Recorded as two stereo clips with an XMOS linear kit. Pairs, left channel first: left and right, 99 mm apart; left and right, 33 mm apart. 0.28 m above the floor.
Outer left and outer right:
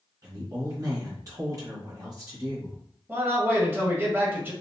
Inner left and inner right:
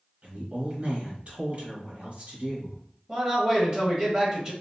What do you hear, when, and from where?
0.2 s a woman speaking: 40° right (ahead or behind), 1.5 m
3.1 s a man speaking: 25° right (ahead or behind), 1.2 m